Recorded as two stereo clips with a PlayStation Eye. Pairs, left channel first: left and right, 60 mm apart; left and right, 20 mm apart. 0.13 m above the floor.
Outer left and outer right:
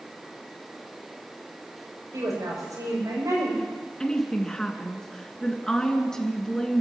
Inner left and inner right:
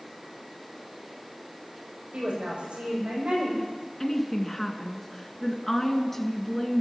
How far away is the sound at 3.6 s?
About 1.9 m.